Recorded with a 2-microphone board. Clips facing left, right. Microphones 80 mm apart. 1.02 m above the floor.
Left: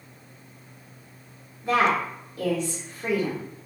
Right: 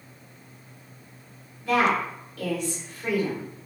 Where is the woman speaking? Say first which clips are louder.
Even; 25° left (ahead or behind), 1.2 m.